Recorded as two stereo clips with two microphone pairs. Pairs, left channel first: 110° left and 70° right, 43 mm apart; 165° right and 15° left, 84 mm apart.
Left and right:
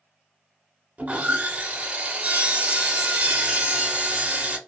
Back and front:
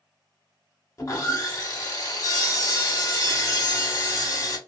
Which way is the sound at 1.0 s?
125° right.